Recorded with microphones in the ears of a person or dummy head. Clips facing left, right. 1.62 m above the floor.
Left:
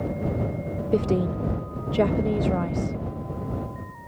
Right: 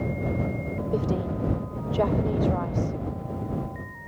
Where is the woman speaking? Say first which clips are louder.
Left 5 dB; 30° left (ahead or behind).